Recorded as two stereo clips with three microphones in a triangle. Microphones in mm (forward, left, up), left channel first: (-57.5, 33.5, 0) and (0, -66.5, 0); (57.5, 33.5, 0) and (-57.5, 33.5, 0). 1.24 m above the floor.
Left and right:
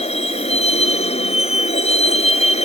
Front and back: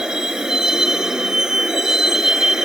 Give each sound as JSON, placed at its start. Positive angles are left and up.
{"t": 0.0, "sound": "a vehicle", "azimuth_deg": 95}